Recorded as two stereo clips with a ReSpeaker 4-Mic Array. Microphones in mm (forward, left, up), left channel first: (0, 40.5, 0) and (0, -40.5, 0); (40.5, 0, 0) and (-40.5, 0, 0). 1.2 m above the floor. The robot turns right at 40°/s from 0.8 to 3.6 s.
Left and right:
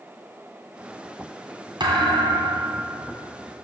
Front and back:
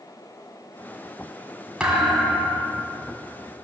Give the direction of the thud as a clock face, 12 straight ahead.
3 o'clock.